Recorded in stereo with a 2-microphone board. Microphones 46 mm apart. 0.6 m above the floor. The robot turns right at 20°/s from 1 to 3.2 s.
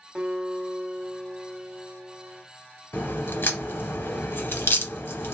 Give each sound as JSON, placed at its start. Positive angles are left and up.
{"t": 0.1, "sound": "a guitar", "side_deg": -20, "distance_m": 0.8}
{"t": 2.9, "sound": "a crack", "side_deg": 55, "distance_m": 0.7}